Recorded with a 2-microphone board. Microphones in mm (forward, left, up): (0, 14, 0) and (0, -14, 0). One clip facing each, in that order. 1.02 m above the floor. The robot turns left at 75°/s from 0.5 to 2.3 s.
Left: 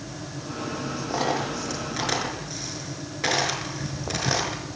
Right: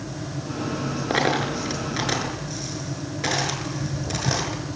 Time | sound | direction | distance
1.1 | a dropped coin | 80° right | 6.5 m
3.6 | footsteps | 40° left (ahead or behind) | 4 m